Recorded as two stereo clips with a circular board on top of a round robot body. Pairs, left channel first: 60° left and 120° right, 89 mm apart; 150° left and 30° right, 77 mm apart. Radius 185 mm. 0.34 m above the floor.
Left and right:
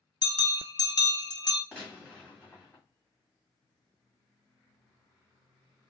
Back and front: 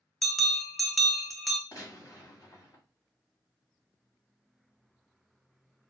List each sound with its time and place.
0.2 s a bell: 60° left, 0.8 m
1.7 s a gunshot: 130° left, 2.0 m